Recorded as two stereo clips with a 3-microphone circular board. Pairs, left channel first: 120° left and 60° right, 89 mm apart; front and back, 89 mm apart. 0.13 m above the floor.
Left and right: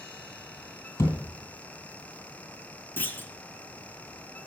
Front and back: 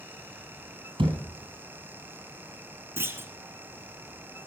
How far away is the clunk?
About 0.9 m.